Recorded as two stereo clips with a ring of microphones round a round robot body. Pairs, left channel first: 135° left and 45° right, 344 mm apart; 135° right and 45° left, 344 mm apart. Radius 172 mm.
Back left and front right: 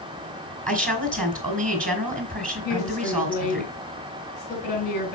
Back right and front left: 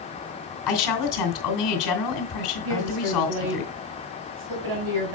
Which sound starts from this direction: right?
A woman speaking, at 0.7 s.